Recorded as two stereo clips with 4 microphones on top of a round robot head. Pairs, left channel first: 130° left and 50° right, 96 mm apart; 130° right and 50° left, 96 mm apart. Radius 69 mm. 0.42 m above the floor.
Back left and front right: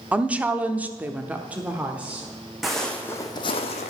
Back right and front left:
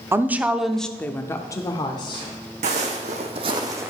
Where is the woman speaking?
15° left, 0.8 m; by 2.3 s 125° right, 1.2 m.